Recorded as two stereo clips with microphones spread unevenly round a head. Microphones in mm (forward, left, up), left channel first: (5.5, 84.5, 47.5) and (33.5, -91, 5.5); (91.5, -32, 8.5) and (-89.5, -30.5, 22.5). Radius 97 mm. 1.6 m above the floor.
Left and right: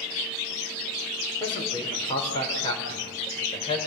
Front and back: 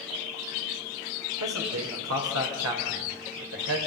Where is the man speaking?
165° left, 4.5 m.